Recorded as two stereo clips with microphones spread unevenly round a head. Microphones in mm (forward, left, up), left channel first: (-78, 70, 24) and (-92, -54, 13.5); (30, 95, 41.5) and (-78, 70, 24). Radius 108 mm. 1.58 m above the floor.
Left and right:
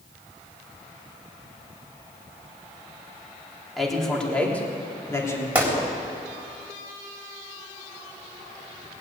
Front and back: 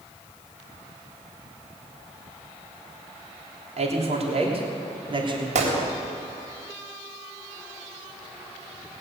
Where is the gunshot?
175° right, 3.5 m.